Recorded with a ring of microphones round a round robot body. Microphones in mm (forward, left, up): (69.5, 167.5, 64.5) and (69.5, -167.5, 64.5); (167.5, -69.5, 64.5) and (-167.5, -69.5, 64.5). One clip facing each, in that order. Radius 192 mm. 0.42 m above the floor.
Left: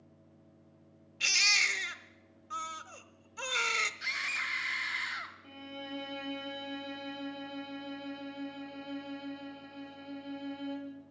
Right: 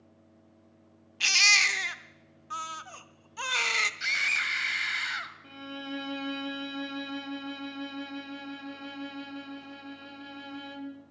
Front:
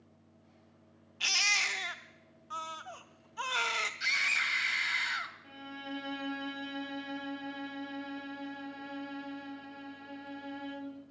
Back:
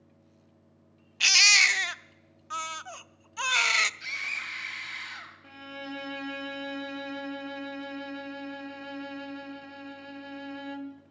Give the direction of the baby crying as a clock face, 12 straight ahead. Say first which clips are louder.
Right 5 dB, back 4 dB; 6 o'clock.